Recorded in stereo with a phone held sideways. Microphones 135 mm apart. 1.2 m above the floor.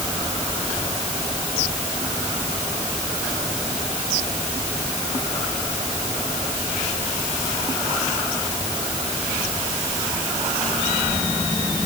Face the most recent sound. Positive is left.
No sound to turn to.